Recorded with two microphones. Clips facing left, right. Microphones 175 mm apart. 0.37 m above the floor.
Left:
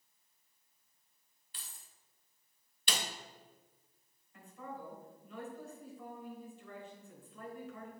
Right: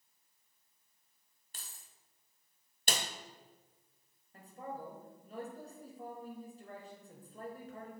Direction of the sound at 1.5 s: 50° right (ahead or behind).